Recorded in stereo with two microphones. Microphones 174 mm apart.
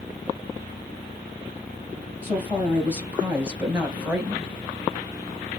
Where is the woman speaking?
10° right (ahead or behind), 3 m; by 4.5 s 5° right (ahead or behind), 2.0 m.